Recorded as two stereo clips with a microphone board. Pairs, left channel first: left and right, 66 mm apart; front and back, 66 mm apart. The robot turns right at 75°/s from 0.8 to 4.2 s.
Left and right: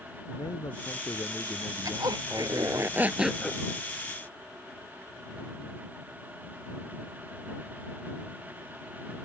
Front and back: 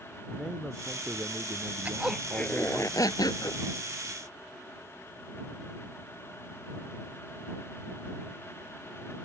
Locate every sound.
0.3 s a man speaking: 95° left; by 2.9 s 110° right
1.9 s a zipper: 115° right; by 3.6 s 20° left